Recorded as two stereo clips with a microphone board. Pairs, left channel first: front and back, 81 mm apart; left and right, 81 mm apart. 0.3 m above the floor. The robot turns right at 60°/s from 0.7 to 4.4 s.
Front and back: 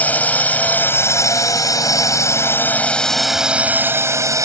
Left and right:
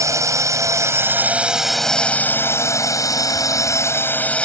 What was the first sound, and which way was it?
A drone, 65° right.